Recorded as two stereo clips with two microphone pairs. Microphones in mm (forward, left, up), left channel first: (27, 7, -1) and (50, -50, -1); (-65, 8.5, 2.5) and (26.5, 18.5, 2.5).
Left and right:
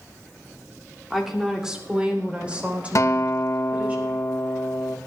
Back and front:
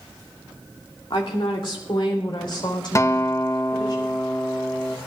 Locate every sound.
1.1 s a woman speaking: 155° right, 2 m; by 4.0 s 130° right, 4.5 m
3.0 s a guitar: 135° left, 0.7 m